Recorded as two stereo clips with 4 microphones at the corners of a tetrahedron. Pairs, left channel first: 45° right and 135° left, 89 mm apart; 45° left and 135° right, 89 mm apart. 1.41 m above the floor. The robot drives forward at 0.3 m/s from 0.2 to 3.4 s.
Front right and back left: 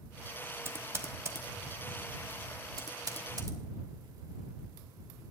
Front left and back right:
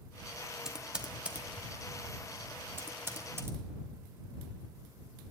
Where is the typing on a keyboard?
150° left, 0.9 m; by 3.6 s 170° left, 1.5 m.